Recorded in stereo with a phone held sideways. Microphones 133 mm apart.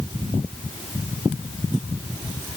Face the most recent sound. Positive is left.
No sound to turn to.